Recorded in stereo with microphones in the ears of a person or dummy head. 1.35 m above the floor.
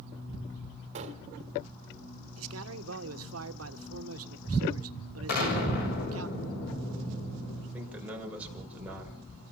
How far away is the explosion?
About 7 m.